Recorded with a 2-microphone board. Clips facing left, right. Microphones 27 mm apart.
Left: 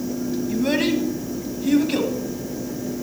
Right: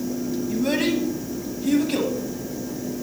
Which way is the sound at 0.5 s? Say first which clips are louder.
Left 1 dB; 10° left (ahead or behind).